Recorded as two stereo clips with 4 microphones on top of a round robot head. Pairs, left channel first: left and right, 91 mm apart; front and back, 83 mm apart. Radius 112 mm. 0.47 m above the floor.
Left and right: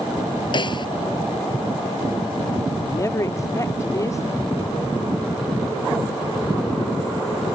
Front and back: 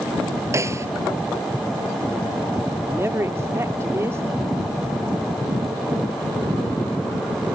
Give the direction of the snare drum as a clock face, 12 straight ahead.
8 o'clock.